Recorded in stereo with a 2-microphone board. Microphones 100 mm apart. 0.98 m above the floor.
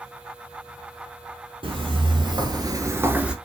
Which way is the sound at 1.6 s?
60° right (ahead or behind).